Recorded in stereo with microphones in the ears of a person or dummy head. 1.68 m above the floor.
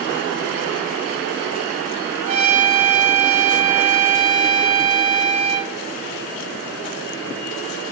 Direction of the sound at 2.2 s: 45° right (ahead or behind).